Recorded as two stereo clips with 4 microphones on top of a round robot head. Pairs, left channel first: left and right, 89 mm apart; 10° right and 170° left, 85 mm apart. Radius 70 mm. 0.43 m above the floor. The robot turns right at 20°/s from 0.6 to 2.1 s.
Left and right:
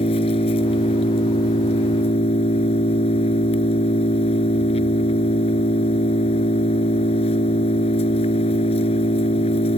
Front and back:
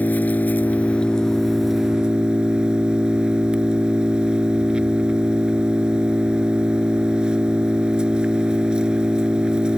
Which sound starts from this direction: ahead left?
An engine running, at 0.0 s.